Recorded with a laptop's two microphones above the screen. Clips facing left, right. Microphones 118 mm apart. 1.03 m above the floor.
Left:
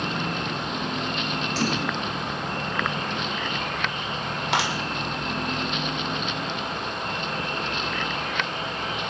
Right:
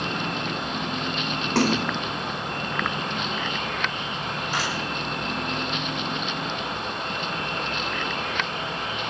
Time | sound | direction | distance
1.6 | a splash | 70° right (ahead or behind) | 2.5 m
4.5 | a clap | 85° left | 3.5 m